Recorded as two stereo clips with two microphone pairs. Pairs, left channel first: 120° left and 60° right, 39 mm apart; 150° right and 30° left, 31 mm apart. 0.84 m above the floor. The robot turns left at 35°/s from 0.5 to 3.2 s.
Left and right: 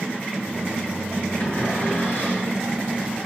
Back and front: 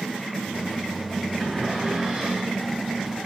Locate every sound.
1.4 s a cupboard door: 130° left, 4 m; by 2.6 s 90° left, 4 m